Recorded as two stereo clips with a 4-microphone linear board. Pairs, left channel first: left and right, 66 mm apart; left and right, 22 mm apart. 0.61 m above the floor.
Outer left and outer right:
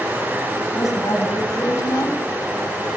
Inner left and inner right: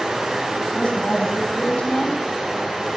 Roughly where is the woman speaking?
Left.